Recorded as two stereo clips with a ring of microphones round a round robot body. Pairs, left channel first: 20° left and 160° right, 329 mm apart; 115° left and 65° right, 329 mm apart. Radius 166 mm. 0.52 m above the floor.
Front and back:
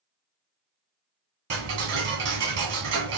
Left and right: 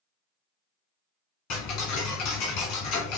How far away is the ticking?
About 1.6 m.